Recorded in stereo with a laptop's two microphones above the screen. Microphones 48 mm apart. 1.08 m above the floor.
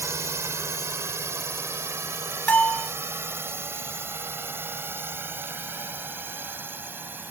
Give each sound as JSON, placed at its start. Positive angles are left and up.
{"t": 0.0, "sound": "a drone", "side_deg": -80}
{"t": 2.5, "sound": "a bell", "side_deg": 30}